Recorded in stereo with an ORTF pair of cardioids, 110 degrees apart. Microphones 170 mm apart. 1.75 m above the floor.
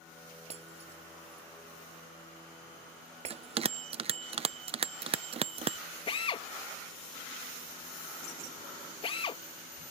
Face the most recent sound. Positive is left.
turn(degrees=35)